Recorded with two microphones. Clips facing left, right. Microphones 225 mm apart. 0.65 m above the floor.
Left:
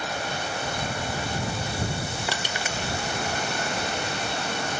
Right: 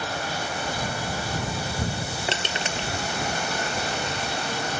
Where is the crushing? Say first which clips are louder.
Right 2 dB; 25° right (ahead or behind).